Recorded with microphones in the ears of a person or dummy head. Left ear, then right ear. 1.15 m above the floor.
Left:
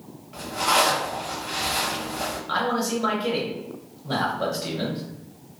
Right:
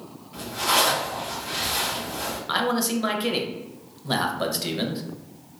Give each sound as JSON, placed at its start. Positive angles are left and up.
{"t": 0.3, "sound": "a zipper", "side_deg": 25, "distance_m": 1.0}
{"t": 2.5, "sound": "a man speaking", "side_deg": -20, "distance_m": 0.5}